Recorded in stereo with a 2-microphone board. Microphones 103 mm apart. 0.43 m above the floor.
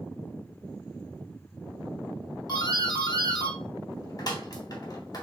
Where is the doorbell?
40° left (ahead or behind), 2.0 m.